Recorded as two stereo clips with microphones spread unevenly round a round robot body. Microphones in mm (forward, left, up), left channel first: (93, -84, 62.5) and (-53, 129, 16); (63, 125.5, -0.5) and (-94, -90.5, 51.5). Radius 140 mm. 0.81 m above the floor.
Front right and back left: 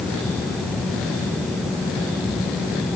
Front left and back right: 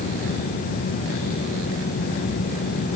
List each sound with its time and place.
Only background noise.